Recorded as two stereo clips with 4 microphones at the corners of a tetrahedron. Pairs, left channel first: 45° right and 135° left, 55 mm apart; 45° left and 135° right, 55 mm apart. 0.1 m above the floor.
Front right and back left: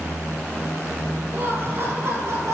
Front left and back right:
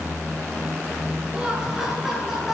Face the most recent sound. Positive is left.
turn(degrees=135)